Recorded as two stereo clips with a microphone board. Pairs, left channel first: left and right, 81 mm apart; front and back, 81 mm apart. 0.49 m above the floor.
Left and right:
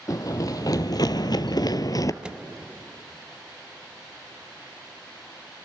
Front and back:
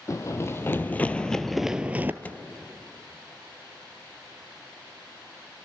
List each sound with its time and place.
0.1 s running footsteps: 50° left, 1.2 m; by 2.1 s 120° left, 0.7 m
2.2 s a microwave: 30° right, 0.5 m